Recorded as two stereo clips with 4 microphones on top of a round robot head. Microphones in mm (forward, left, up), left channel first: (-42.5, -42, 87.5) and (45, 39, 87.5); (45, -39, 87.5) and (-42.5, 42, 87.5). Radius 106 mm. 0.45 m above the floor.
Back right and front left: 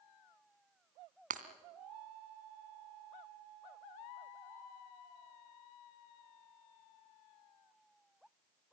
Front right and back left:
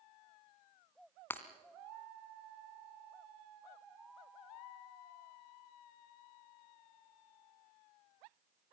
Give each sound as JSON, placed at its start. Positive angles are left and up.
{"t": 1.3, "sound": "breaking glass", "azimuth_deg": 30, "distance_m": 1.6}